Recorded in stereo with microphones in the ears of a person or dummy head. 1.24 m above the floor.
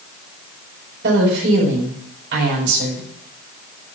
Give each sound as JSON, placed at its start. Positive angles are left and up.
{"t": 1.0, "sound": "a woman speaking", "side_deg": -60, "distance_m": 5.0}